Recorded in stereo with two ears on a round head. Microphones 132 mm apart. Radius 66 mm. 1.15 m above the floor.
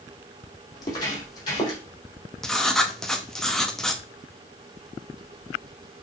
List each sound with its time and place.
0.7 s footsteps: 25° left (ahead or behind), 3 m; by 1.8 s 30° left (ahead or behind), 3.5 m
2.4 s writing: 5° left (ahead or behind), 0.8 m